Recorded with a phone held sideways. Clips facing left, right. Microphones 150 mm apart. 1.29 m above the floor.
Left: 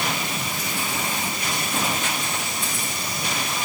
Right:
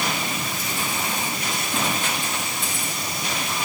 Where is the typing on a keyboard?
I don't hear typing on a keyboard.